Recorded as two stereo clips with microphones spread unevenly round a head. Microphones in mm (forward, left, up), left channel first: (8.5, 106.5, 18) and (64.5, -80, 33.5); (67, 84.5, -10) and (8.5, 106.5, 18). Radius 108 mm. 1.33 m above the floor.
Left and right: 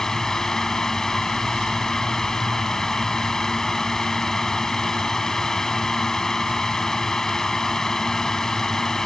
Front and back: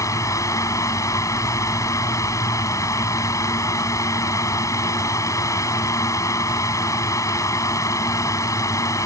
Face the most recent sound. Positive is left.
turn(degrees=15)